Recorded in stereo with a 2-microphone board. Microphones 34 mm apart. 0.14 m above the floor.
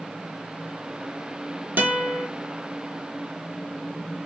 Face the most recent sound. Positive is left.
turn(degrees=-75)  # may be behind; listen again after turning